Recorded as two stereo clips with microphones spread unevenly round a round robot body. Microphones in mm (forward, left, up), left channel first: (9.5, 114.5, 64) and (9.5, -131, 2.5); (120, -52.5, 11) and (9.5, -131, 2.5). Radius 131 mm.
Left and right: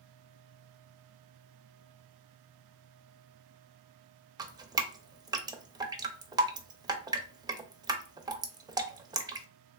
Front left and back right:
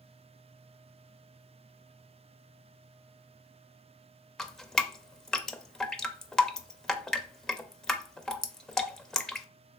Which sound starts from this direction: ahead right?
Dripping, at 4.4 s.